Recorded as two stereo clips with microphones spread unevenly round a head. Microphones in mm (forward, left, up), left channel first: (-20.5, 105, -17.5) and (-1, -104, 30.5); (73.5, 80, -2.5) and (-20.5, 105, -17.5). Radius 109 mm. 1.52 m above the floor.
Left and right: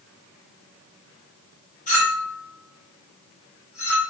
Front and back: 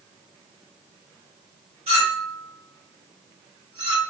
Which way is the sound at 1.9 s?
155° left.